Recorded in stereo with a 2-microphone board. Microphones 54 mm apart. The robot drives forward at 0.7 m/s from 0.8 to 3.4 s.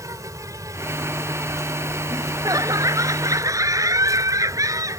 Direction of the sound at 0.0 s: 70° right (ahead or behind).